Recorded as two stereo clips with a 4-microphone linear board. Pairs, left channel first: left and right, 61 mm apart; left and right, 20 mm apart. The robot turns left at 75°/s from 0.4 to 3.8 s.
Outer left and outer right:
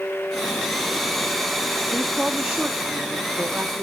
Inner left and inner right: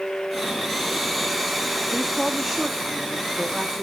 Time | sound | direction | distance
1.9 | a woman speaking | 20° left | 0.7 m